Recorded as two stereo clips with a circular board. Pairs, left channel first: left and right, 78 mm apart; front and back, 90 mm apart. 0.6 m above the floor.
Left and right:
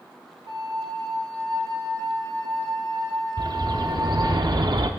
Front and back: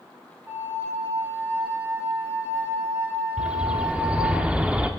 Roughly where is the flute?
Behind right.